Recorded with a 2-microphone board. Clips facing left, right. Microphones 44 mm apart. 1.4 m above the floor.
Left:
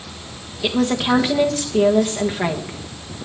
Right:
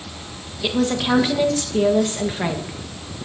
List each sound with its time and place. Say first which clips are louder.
0.6 s a woman speaking: left 1 dB; 10° left (ahead or behind), 1.3 m